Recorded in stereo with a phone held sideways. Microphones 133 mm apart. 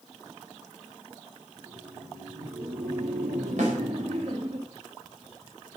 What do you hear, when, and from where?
1.6 s laughter: 85° right, 2.5 m; by 4.6 s 50° right (ahead or behind), 2 m
3.6 s a snare drum: 65° right (ahead or behind), 5.5 m